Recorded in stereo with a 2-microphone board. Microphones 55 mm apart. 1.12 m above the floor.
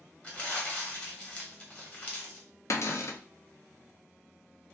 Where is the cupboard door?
55° left (ahead or behind), 0.5 m.